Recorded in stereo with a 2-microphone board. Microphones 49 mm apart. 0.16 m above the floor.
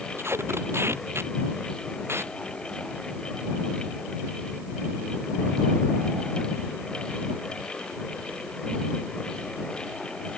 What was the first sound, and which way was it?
Tape being pulled, 60° right (ahead or behind).